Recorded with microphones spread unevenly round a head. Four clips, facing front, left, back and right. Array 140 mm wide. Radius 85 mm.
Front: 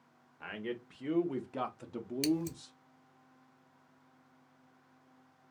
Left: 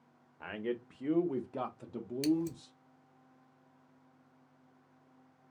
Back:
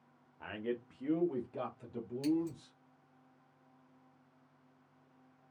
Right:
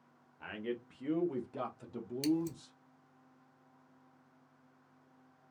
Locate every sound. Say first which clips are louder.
0.4 s a man speaking: left 3 dB, back 1 dB; 90° left, 0.8 m; by 2.8 s 45° right, 1.0 m
2.2 s scissors: left 2 dB, even; 15° left, 0.8 m